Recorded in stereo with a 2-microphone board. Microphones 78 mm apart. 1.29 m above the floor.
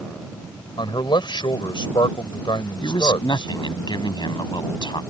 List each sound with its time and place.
0.8 s a man speaking: 85° left
2.8 s a man speaking: 70° left (ahead or behind)